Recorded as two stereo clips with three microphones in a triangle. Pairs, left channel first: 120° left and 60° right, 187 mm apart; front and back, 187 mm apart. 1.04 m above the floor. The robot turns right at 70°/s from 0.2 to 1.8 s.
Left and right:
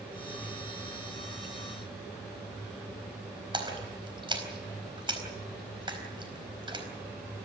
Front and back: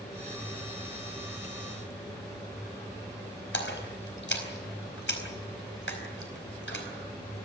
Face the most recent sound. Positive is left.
turn(degrees=5)